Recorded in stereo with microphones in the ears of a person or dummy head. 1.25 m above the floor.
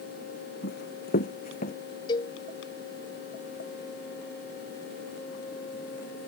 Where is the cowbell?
20° left (ahead or behind).